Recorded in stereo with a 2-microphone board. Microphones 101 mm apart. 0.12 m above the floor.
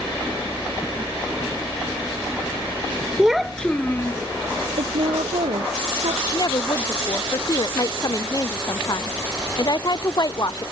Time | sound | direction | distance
3.2 | a child speaking | 10° right (ahead or behind) | ?
4.8 | a woman speaking | 70° right (ahead or behind) | ?
6.2 | a woman speaking | 40° left (ahead or behind) | ?